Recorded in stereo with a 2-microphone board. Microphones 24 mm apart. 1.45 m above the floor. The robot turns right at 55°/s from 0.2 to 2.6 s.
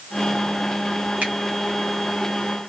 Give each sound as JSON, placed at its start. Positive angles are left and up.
{"t": 1.2, "sound": "a finger snap", "side_deg": -75, "distance_m": 2.5}